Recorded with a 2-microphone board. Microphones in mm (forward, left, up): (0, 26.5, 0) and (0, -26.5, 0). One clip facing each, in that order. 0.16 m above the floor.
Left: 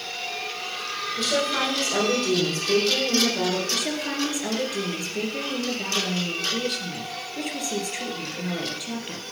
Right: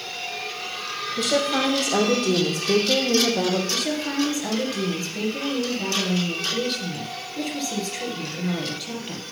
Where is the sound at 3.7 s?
10° left (ahead or behind), 2.5 m.